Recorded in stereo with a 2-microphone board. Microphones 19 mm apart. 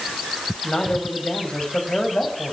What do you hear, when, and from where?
0.6 s a man speaking: 55° left (ahead or behind), 5 m